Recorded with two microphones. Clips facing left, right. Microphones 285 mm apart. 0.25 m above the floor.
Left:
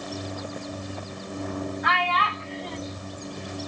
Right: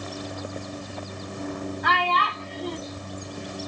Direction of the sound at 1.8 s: 45° right (ahead or behind).